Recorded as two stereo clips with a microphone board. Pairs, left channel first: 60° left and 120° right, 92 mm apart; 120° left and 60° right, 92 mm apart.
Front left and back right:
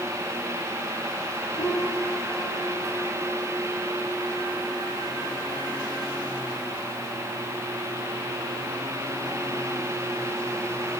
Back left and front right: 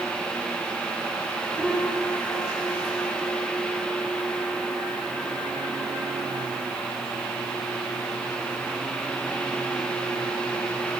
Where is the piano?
35° left, 8.5 m.